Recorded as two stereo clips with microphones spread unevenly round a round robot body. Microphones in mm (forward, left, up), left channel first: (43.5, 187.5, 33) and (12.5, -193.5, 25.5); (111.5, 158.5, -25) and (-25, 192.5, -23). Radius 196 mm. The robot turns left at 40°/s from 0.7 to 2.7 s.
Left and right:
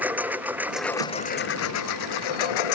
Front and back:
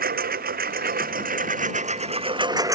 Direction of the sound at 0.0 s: Straight behind.